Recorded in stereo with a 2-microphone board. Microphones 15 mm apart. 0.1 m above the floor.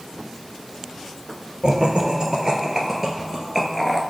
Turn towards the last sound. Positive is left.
turn(degrees=-5)  # may be behind; listen again after turning